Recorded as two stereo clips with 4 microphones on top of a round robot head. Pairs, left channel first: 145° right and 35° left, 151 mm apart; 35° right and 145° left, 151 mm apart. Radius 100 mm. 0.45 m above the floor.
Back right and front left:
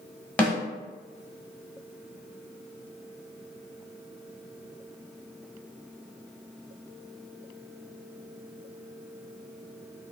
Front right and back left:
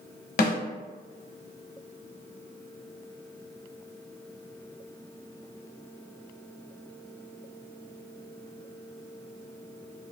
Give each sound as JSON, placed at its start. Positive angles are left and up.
{"t": 0.4, "sound": "a snare drum", "azimuth_deg": -65, "distance_m": 0.8}